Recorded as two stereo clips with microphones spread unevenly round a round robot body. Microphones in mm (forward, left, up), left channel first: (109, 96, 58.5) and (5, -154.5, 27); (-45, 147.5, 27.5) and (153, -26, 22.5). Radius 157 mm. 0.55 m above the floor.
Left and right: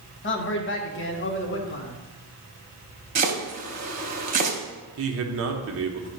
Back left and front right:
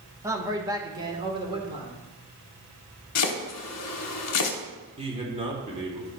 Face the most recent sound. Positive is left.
turn(degrees=-105)